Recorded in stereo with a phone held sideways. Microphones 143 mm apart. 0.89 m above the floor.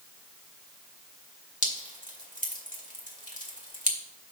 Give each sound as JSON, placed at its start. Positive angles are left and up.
{"t": 1.6, "sound": "dripping", "side_deg": 65, "distance_m": 2.0}